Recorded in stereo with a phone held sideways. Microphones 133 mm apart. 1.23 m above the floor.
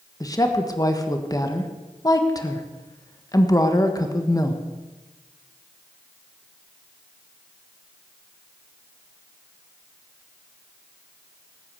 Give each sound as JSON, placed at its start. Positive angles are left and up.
{"t": 0.2, "sound": "a woman speaking", "side_deg": 25, "distance_m": 1.5}